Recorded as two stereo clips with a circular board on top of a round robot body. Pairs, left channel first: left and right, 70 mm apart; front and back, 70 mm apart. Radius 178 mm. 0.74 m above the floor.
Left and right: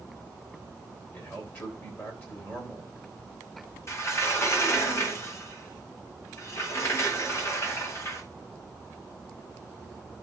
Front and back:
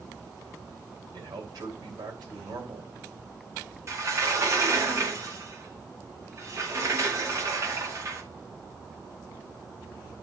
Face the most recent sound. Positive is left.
turn(degrees=140)